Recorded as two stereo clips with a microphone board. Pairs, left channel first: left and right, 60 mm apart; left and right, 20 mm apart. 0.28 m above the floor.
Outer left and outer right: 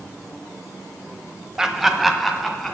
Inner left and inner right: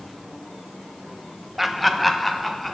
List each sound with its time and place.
1.6 s laughter: 10° right (ahead or behind), 1.1 m; by 2.8 s 5° left (ahead or behind), 2 m